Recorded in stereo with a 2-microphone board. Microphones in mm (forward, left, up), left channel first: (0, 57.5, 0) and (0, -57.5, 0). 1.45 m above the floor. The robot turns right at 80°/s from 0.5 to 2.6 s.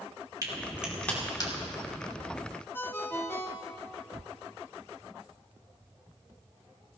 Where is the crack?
35° right (ahead or behind), 3 m; by 1.5 s 45° left (ahead or behind), 3 m.